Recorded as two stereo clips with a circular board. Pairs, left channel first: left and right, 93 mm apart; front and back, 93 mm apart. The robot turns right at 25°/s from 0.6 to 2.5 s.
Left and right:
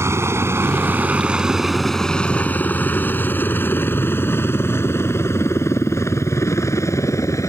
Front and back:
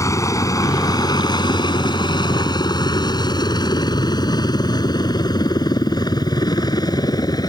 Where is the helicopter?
40° right; by 7.5 s 40° left.